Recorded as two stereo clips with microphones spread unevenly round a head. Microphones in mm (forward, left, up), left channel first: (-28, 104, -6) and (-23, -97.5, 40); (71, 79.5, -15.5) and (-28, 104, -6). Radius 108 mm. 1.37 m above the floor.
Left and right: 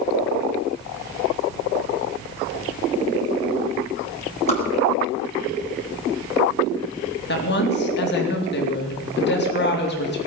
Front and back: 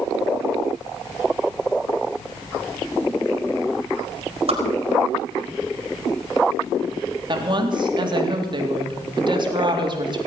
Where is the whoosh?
150° left, 4 m.